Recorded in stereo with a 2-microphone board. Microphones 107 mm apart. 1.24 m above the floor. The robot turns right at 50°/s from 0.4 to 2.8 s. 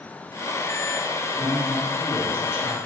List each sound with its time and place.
1.4 s a man speaking: 5° left, 1.7 m; by 2.8 s 75° left, 1.7 m